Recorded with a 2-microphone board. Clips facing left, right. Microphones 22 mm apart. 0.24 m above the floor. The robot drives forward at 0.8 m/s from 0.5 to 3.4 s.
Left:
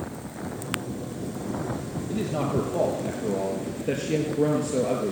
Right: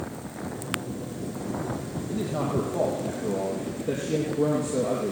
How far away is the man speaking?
About 4.5 m.